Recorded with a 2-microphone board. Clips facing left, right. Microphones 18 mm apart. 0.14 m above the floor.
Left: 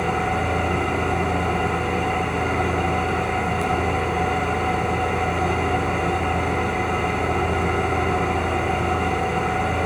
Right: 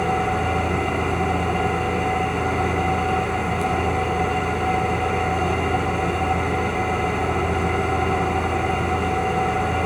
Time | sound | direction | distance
0.0 | an engine running | centre (ahead or behind) | 2.5 m